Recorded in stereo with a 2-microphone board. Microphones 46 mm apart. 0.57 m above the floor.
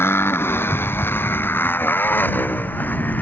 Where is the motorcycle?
60° left (ahead or behind); by 3.2 s 40° left (ahead or behind).